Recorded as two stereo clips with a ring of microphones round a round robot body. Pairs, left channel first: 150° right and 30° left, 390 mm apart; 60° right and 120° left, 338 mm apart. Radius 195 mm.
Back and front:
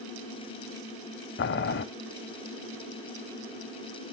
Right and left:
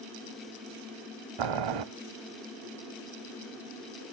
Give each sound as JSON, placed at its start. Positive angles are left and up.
{"t": 1.4, "sound": "boiling", "azimuth_deg": 145, "distance_m": 0.7}